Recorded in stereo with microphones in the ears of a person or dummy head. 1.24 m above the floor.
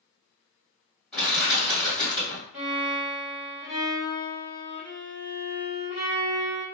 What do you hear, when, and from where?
1.1 s crushing: centre (ahead or behind), 1.6 m
2.5 s a violin: 5° right (ahead or behind), 1.2 m